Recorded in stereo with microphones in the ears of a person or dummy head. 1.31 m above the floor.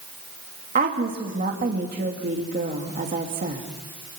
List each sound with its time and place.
0.8 s a woman speaking: 35° right (ahead or behind), 2.5 m